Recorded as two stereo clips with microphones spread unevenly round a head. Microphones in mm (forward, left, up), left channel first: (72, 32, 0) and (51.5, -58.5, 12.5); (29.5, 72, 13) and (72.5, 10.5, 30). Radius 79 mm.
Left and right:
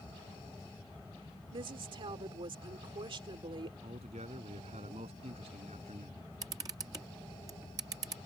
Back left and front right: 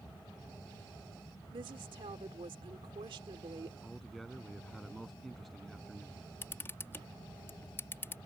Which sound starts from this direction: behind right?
A man speaking, at 3.8 s.